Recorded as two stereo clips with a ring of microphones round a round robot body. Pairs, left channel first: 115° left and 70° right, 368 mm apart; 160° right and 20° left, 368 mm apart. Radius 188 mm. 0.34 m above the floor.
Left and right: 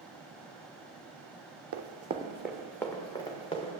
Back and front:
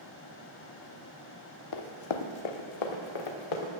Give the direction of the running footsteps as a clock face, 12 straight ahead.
4 o'clock.